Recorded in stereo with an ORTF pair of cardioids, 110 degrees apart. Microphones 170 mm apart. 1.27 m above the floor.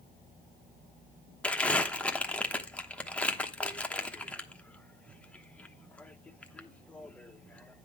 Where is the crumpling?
5° left, 1.0 m.